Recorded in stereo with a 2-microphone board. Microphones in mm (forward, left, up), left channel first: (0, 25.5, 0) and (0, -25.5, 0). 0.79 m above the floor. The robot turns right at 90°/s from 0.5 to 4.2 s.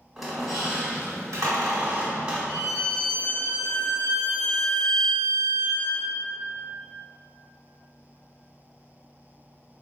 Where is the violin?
20° right, 1.0 m; by 6.1 s 135° left, 1.0 m.